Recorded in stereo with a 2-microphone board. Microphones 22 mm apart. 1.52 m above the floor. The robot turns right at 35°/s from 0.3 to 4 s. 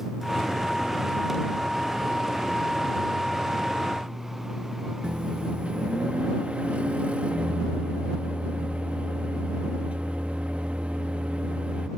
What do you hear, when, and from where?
5.0 s a microwave: 70° right (ahead or behind)